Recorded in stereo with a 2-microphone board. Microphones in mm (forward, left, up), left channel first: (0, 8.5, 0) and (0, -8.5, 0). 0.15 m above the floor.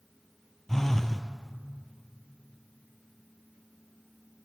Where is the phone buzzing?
20° left (ahead or behind), 1.7 m.